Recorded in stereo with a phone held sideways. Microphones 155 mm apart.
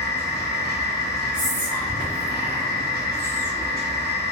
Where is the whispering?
75° left (ahead or behind), 1.6 m.